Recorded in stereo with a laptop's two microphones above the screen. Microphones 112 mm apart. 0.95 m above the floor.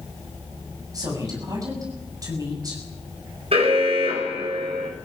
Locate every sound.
0.9 s a woman speaking: 35° right (ahead or behind), 7.5 m
3.5 s an alarm: 60° right (ahead or behind), 5.5 m